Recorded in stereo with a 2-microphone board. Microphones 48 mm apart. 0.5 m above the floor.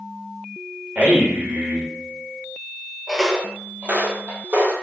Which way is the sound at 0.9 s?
40° right (ahead or behind).